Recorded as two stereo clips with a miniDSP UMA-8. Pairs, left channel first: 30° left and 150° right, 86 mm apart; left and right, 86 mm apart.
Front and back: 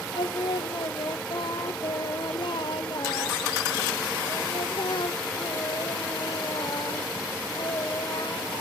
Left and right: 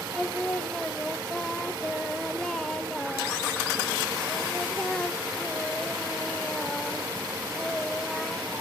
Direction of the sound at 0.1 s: 10° left.